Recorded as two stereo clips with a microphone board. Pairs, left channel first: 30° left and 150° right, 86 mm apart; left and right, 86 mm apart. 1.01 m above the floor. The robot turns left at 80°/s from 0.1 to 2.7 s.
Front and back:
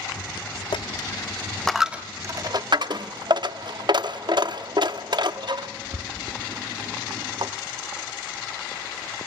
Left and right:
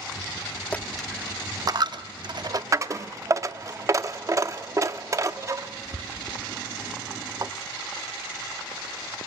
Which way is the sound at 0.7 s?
20° left.